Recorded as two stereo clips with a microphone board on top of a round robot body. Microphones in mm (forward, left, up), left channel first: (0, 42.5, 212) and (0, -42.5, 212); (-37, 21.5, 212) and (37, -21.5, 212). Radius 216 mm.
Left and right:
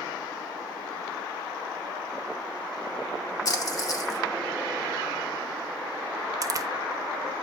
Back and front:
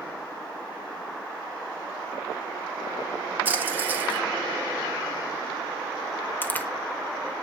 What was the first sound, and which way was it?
A splash, 40° left.